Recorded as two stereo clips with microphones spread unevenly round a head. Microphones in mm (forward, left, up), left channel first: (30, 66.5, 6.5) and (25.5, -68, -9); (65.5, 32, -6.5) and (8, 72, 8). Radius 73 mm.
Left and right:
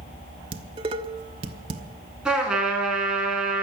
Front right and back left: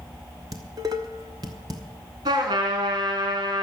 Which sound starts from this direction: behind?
A trumpet, at 2.2 s.